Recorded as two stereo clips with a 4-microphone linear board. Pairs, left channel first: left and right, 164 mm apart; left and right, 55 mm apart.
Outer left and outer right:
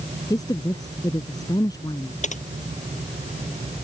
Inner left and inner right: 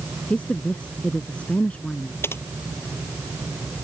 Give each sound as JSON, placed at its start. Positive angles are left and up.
{"t": 0.3, "sound": "a woman speaking", "side_deg": 20}
{"t": 2.2, "sound": "typing on a keyboard", "side_deg": 45}